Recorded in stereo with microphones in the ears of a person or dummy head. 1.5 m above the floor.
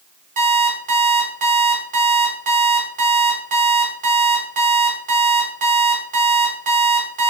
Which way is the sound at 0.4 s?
40° right (ahead or behind).